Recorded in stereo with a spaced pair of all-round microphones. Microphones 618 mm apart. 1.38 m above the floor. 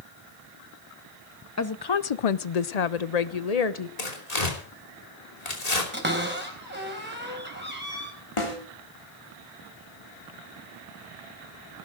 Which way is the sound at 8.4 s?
50° left (ahead or behind).